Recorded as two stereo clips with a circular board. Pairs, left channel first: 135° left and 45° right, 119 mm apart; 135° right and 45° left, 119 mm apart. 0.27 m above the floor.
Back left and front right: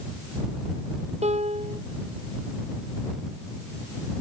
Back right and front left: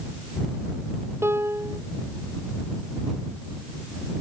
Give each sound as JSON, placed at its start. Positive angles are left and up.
{"t": 1.2, "sound": "a piano", "azimuth_deg": -25}